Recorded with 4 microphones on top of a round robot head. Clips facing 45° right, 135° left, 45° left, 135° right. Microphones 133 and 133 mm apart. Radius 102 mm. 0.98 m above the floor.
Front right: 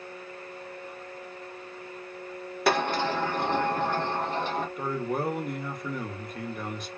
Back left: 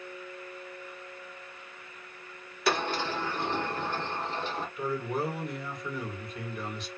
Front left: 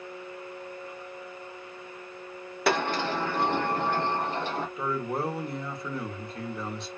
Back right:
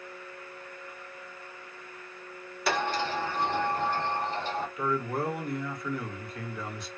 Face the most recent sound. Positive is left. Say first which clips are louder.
# back left 2 dB, back right 1 dB
turn(degrees=-15)